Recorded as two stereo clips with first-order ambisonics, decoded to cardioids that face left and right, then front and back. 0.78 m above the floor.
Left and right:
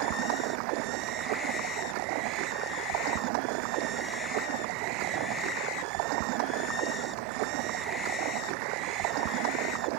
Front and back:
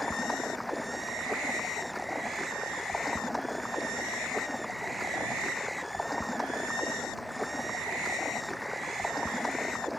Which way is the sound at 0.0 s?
85° right.